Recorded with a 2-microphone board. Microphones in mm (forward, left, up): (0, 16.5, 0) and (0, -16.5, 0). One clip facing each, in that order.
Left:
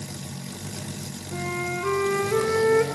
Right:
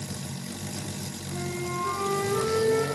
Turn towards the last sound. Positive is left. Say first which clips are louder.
# left 4 dB
turn(degrees=75)  # may be behind; listen again after turning